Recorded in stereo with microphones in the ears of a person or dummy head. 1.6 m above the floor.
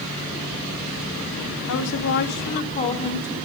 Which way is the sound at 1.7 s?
65° left (ahead or behind).